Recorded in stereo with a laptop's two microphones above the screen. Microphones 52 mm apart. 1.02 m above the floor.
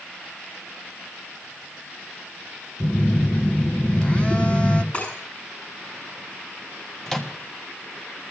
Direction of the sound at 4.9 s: 30° left (ahead or behind).